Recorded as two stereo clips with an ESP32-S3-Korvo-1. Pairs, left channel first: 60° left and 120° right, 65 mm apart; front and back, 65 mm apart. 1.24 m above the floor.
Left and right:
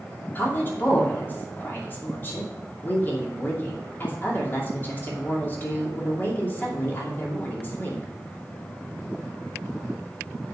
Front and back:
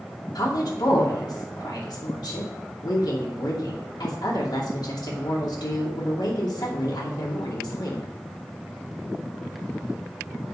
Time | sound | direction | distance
0.3 | a woman speaking | straight ahead | 2.5 m